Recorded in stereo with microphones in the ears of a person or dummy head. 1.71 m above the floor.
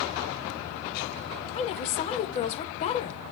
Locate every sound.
1.5 s a woman speaking: 35° left (ahead or behind), 0.8 m